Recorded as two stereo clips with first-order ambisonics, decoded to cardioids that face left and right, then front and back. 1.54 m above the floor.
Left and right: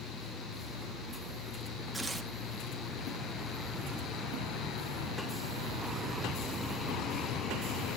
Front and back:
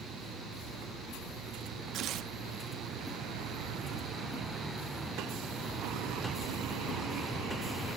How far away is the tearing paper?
About 1.2 m.